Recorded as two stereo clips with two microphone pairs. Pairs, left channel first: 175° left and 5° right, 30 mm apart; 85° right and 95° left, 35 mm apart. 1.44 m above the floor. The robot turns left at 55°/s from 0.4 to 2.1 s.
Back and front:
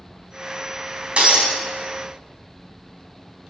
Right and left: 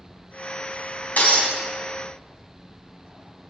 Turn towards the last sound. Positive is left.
turn(degrees=-105)